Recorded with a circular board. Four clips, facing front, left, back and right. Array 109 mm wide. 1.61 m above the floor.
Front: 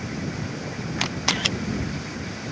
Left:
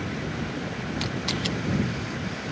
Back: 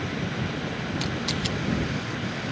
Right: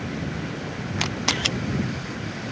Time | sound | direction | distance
1.0 | a camera shutter | 40° right | ?